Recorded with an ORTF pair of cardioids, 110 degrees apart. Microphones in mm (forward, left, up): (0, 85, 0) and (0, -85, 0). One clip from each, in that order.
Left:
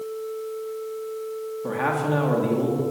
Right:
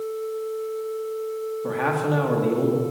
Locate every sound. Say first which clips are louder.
1.6 s a man speaking: even; straight ahead, 3 m